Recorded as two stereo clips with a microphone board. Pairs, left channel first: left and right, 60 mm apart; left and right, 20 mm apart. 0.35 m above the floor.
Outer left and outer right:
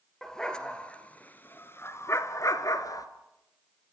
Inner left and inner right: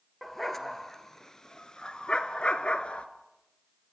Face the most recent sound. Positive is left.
turn(degrees=75)  # may be behind; listen again after turning